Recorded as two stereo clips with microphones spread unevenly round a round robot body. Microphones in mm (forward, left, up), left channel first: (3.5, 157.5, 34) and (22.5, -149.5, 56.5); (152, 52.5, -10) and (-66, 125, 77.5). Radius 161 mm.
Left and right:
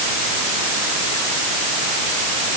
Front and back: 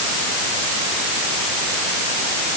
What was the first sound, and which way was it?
Only background noise.